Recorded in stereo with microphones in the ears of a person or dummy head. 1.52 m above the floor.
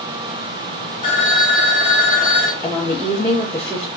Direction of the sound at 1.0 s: 35° left (ahead or behind).